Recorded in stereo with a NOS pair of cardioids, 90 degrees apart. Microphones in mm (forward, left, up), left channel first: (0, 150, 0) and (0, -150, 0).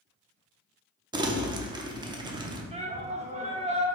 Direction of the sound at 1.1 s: 15° right.